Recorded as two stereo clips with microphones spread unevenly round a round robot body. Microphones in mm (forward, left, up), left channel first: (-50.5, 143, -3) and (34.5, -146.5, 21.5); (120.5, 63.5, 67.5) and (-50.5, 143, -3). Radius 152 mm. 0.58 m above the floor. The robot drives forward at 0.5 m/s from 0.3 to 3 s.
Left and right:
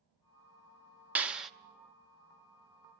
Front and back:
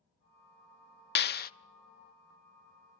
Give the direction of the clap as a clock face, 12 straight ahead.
12 o'clock.